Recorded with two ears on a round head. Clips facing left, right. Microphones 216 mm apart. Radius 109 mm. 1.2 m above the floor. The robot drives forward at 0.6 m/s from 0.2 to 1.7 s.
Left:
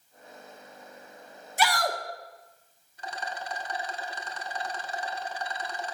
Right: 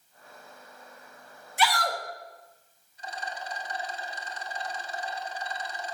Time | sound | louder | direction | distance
1.6 | a shout | left 1 dB | 35° left (ahead or behind) | 1.1 m
3.0 | a rattle | left 1 dB | 50° left (ahead or behind) | 1.0 m